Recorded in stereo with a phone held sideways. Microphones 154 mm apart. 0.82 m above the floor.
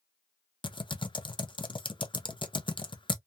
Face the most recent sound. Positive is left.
turn(degrees=30)  # may be behind; listen again after turning